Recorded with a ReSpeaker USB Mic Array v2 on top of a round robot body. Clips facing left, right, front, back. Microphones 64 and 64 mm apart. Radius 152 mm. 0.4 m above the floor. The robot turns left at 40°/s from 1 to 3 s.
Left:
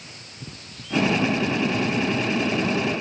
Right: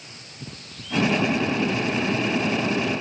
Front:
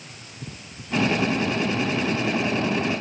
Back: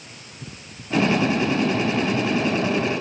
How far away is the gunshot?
No gunshot in this recording.